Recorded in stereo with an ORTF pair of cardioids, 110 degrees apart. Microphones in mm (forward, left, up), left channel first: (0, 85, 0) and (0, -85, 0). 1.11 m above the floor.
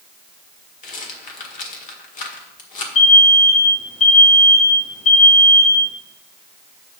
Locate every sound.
0.8 s a rattle: 50° left, 1.6 m
3.0 s an alarm: 45° left, 2.0 m